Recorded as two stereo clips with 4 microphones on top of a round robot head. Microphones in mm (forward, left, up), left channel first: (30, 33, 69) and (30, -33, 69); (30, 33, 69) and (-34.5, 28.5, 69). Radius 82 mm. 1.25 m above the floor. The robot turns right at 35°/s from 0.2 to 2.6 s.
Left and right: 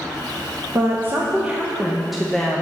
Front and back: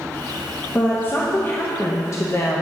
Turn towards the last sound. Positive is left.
turn(degrees=15)